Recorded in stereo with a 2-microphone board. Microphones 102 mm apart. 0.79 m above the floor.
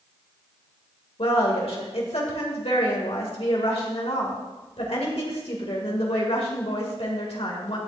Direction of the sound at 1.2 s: 80° left.